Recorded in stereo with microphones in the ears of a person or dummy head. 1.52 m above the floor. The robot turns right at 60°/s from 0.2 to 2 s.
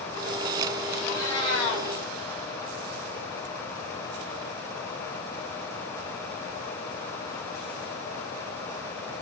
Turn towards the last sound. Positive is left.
turn(degrees=70)